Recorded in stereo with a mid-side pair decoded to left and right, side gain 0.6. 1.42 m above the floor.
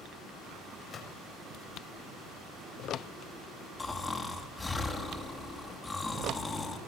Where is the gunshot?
40° left, 6.5 m.